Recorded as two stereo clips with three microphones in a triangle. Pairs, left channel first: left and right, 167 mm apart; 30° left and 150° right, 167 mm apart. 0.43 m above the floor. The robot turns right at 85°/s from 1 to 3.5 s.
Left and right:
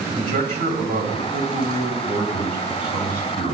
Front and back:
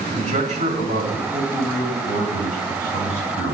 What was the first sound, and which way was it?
A man speaking, 115° right.